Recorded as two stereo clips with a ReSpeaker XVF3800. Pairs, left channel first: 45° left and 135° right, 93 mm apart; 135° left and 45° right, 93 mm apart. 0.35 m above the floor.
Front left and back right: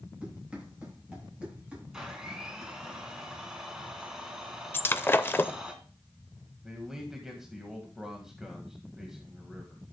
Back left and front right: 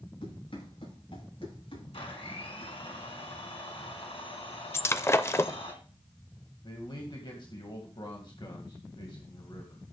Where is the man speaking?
140° left, 2 m.